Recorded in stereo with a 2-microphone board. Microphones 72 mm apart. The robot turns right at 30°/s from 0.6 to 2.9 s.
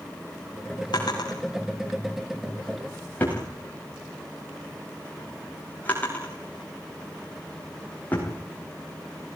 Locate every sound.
0.9 s a drawer: 80° left, 8 m; by 9.4 s 25° left (ahead or behind), 8 m